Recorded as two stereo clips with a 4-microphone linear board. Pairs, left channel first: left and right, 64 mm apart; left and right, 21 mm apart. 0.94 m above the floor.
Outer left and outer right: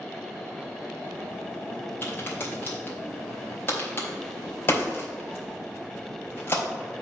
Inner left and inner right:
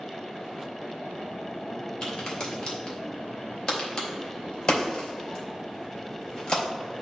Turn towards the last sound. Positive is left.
turn(degrees=40)  # may be behind; listen again after turning